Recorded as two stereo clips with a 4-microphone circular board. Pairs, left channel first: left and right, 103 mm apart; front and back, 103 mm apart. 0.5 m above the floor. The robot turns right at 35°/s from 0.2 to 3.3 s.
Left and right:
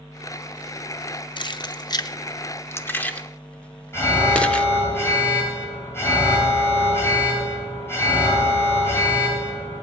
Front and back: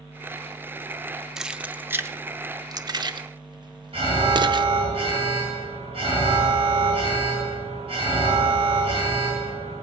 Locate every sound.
1.4 s keys jangling: 100° left, 0.6 m; by 4.7 s 165° left, 0.6 m
3.9 s an alarm: 155° left, 4 m